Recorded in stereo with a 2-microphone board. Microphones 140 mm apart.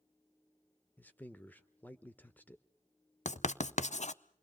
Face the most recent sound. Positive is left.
turn(degrees=60)  # may be behind; listen again after turning